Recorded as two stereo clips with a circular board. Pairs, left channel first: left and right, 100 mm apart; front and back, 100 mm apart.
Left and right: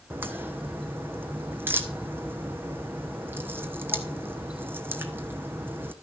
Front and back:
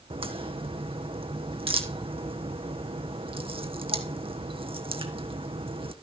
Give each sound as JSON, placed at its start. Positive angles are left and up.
{"t": 0.1, "sound": "a crack", "azimuth_deg": -160, "distance_m": 1.2}